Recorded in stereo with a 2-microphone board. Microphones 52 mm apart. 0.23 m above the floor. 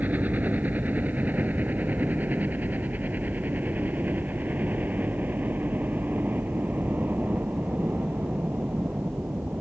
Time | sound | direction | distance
0.0 | a helicopter | 35° right (ahead or behind) | ?